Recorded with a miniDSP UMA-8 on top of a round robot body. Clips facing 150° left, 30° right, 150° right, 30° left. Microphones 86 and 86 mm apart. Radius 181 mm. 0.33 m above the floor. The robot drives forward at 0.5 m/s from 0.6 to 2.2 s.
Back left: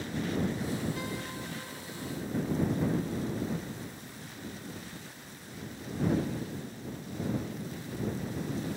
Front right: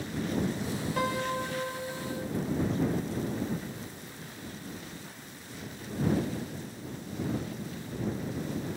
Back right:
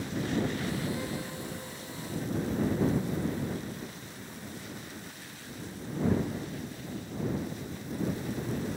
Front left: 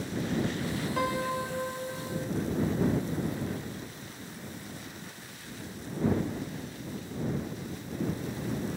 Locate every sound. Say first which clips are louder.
1.0 s a piano: front right 8 dB, front left 7 dB; 5° left; by 2.3 s 10° left